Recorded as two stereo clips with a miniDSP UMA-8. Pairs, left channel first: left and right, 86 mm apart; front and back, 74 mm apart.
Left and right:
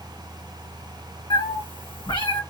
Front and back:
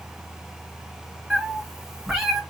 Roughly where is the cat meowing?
Left.